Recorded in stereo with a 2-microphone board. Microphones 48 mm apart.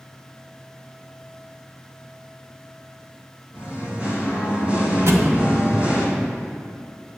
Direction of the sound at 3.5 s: 30° right (ahead or behind).